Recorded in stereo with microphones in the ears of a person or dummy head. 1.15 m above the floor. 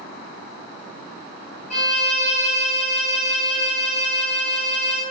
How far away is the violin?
About 1.2 m.